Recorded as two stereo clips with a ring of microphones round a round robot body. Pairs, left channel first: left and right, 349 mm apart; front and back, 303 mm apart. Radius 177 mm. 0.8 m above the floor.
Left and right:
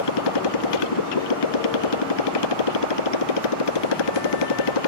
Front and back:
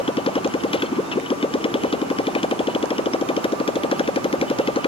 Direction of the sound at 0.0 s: 75° left.